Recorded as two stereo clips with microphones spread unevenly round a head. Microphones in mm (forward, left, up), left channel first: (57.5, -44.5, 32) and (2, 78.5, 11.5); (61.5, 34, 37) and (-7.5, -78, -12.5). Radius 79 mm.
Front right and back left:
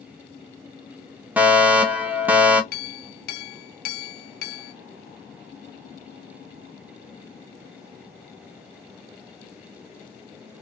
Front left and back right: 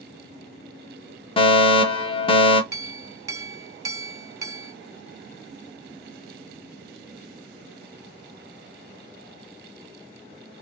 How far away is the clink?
About 0.6 m.